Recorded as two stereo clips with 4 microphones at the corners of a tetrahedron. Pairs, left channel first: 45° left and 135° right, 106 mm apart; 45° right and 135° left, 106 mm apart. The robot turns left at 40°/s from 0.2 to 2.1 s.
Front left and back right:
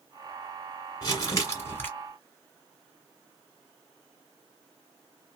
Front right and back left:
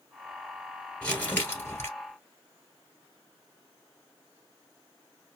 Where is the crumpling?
30° left, 1.6 m; by 1.9 s 10° right, 1.6 m.